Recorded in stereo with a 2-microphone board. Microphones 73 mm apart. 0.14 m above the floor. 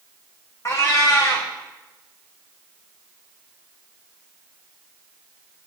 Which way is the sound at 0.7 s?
35° left (ahead or behind).